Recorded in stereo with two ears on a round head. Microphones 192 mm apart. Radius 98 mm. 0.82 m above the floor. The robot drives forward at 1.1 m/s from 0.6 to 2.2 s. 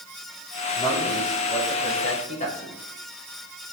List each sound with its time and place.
0.7 s a man speaking: 20° left (ahead or behind), 4.5 m; by 2.8 s 35° left (ahead or behind), 3 m